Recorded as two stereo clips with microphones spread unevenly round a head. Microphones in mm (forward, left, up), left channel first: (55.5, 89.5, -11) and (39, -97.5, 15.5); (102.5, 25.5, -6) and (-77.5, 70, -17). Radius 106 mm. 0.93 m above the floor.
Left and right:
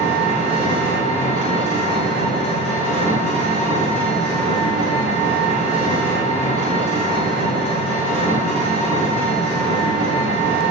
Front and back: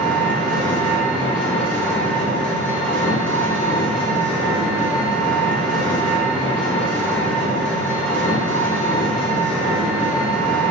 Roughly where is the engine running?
Left.